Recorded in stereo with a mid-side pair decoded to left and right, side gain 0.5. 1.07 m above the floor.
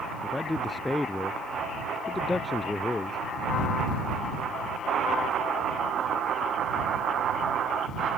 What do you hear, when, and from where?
0.2 s a man speaking: 15° left; by 3.2 s 20° left